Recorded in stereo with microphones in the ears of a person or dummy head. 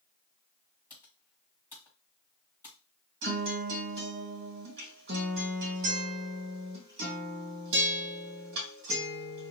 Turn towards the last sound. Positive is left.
turn(degrees=-65)  # may be behind; listen again after turning